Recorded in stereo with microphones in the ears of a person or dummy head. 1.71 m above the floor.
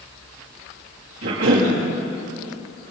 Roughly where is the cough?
Right.